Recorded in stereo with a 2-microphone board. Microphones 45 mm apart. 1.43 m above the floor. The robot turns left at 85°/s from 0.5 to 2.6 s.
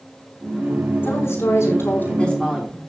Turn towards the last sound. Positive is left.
turn(degrees=-5)